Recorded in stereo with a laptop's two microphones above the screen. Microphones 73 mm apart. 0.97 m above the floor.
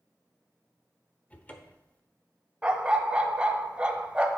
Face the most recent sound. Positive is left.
turn(degrees=-15)  # may be behind; listen again after turning